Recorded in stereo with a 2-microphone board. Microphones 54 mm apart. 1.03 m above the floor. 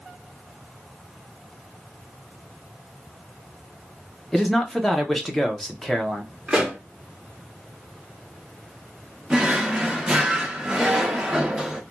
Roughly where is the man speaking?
Centre.